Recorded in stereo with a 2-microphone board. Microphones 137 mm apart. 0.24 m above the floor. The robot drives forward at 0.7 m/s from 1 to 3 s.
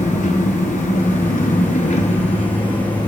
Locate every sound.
0.0 s an engine running: 70° left (ahead or behind), 0.8 m; by 3.1 s 35° left (ahead or behind), 1.4 m